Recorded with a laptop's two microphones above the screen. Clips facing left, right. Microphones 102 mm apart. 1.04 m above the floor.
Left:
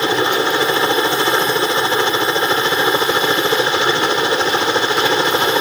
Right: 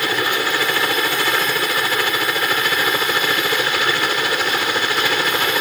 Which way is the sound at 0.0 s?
25° left (ahead or behind).